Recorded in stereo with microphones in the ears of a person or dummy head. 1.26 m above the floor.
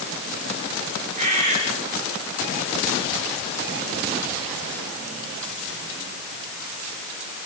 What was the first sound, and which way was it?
A bird, 40° right (ahead or behind).